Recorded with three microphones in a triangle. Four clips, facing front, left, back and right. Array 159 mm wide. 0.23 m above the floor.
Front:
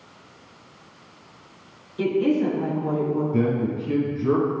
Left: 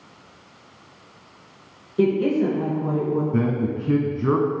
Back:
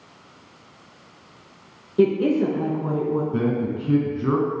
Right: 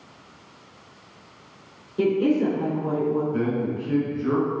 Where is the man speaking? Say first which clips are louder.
Left 2 dB, front 1 dB; 115° left, 2 m.